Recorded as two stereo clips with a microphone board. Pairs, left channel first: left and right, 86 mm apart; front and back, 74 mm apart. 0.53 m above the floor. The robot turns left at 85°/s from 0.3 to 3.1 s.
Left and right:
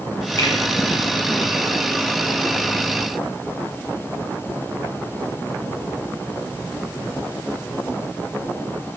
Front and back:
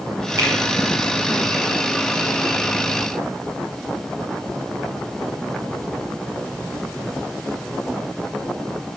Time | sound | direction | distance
0.4 | a finger snap | 140° left | 2.5 m